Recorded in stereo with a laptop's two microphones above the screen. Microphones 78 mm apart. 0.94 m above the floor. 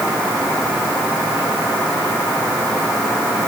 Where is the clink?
No clink in this recording.